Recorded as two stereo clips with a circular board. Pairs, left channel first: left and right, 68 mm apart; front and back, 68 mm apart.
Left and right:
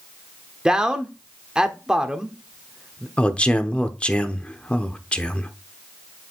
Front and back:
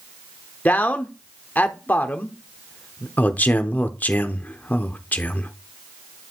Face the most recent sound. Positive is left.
turn(degrees=35)